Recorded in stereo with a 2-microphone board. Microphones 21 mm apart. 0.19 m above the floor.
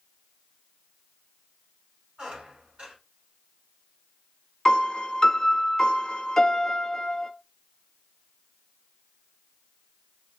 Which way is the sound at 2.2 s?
50° right (ahead or behind).